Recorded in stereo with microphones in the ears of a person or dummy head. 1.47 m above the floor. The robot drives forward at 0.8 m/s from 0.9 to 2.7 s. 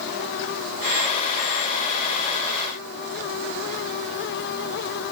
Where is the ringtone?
No ringtone in this recording.